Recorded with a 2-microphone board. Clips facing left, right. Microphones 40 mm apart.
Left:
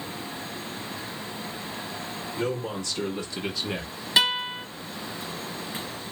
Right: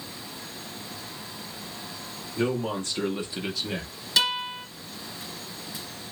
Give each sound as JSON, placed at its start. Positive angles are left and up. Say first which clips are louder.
{"t": 2.4, "sound": "a man speaking", "louder": "right 3 dB", "side_deg": -45, "distance_m": 1.3}
{"t": 4.2, "sound": "a guitar", "louder": "left 2 dB", "side_deg": 20, "distance_m": 1.1}